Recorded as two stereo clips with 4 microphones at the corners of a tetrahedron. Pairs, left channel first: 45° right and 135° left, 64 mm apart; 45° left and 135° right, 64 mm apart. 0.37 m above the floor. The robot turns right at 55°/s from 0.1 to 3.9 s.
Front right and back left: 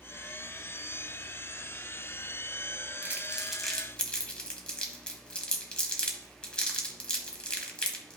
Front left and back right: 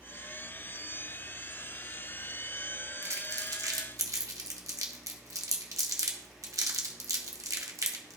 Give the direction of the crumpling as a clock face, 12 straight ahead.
6 o'clock.